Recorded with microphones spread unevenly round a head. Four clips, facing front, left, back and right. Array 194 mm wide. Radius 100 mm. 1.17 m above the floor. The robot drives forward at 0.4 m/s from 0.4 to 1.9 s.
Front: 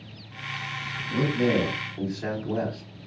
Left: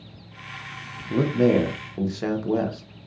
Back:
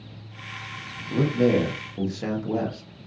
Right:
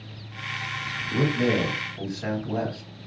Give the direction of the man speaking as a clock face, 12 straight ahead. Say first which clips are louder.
Left 4 dB, back 3 dB; 8 o'clock.